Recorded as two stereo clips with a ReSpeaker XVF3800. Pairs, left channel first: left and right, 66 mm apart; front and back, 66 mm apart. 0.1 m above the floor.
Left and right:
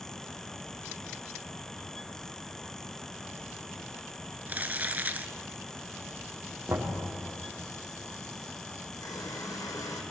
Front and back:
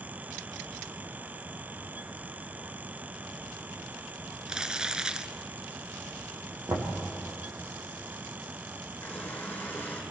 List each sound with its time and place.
4.5 s crumpling: 115° right, 0.8 m
6.7 s knocking: 150° right, 5 m
9.0 s a running tap: 65° left, 4 m